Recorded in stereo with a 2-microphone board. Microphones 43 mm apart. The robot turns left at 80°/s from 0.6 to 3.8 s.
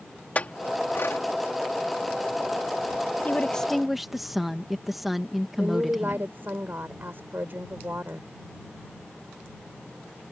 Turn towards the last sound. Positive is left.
turn(degrees=-55)  # may be behind; listen again after turning